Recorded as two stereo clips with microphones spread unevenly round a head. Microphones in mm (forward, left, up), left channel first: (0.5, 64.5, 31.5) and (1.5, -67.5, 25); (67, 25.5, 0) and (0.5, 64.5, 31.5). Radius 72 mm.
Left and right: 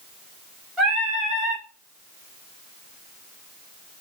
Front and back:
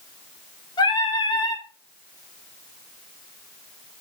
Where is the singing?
Straight ahead, 1.1 m.